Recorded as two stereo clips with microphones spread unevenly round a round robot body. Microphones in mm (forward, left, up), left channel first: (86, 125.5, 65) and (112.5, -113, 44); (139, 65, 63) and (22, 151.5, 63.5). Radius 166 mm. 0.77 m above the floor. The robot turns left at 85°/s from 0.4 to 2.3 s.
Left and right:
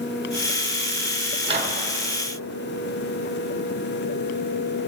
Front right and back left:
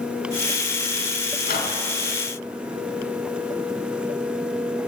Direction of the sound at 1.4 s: 30° right.